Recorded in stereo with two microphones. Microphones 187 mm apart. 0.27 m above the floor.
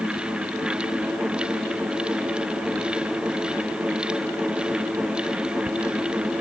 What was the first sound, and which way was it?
Only background noise.